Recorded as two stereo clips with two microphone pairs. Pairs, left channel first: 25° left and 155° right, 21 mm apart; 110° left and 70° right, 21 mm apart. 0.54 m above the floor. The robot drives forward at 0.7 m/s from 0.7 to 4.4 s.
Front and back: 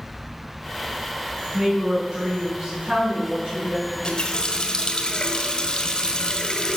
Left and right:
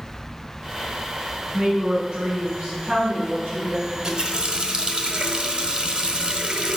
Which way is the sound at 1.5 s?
100° right.